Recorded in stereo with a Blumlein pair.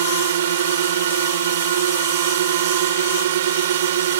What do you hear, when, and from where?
0.0 s a drone: 60° right